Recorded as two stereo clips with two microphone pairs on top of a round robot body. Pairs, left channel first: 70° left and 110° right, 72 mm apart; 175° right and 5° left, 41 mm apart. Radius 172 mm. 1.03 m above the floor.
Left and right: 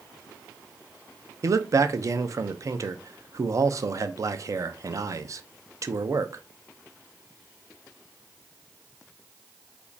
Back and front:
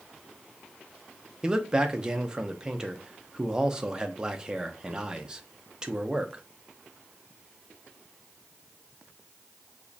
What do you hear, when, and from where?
1.4 s a man speaking: 65° right, 0.5 m